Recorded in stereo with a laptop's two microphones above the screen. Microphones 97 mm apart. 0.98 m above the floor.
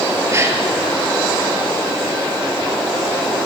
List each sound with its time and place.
0.3 s a gasp: 30° right (ahead or behind), 3 m